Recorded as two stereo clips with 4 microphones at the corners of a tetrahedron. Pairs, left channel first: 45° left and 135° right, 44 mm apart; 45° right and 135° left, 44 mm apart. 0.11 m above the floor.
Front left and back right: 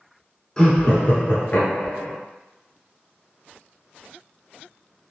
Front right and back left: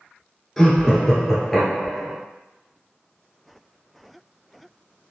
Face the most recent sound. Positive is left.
turn(degrees=40)